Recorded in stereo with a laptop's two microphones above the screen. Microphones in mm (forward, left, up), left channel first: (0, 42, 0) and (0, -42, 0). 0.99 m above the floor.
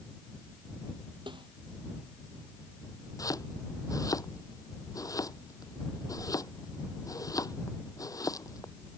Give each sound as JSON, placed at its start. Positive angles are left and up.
{"t": 1.3, "sound": "a snare drum", "side_deg": -75}
{"t": 3.2, "sound": "chopping", "side_deg": 45}